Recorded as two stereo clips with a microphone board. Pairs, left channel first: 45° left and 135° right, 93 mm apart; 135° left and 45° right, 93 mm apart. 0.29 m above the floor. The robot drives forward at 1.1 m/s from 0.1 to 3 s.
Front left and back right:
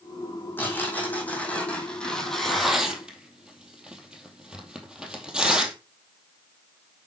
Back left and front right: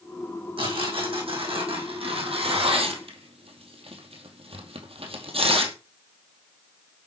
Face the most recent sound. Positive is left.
turn(degrees=-55)